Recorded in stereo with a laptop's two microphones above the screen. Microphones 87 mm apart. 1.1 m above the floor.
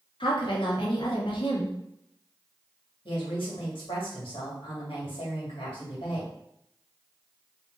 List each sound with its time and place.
0.2 s a woman speaking: 70° left (ahead or behind), 1.3 m
3.0 s a woman speaking: 80° left, 1.9 m